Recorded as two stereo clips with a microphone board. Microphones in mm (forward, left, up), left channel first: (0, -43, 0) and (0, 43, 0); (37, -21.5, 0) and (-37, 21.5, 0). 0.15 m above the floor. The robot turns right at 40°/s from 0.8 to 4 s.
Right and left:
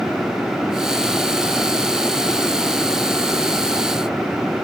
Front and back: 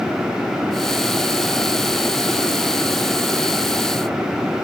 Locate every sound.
Only background noise.